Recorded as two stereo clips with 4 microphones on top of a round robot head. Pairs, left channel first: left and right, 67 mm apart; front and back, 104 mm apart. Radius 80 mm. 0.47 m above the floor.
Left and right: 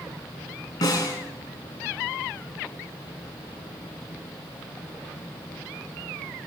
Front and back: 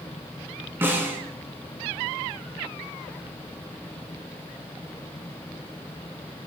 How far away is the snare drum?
About 5 m.